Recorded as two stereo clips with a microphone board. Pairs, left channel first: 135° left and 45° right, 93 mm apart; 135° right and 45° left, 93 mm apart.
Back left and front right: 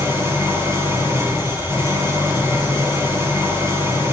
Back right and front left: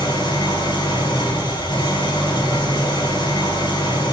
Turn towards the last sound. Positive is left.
turn(degrees=-105)